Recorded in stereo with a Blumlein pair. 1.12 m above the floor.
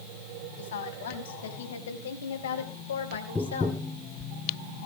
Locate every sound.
0.6 s a woman speaking: 60° left, 6.5 m; by 3.8 s 70° left, 3.5 m
3.4 s tapping: 10° left, 1.0 m